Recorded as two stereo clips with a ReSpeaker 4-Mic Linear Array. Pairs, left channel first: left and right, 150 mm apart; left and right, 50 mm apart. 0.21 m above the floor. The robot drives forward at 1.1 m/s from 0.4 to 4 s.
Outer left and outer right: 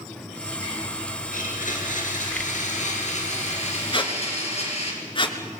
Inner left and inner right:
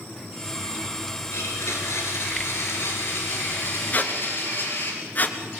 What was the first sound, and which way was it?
A blender, 70° left (ahead or behind).